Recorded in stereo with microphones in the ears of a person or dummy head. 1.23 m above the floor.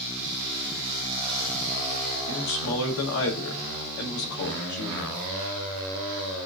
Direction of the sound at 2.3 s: 80° left.